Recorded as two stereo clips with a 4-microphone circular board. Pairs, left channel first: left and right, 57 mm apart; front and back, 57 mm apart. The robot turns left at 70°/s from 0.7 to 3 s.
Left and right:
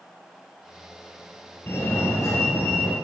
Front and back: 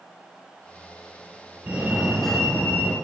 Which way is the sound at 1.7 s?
130° left.